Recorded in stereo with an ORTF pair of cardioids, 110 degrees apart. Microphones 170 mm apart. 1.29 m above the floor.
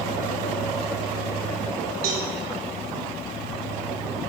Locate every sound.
2.0 s a cowbell: 65° right, 3 m